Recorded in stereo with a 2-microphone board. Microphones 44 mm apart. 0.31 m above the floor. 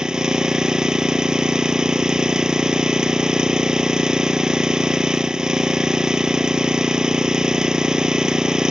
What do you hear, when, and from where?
0.0 s an engine running: 15° right (ahead or behind)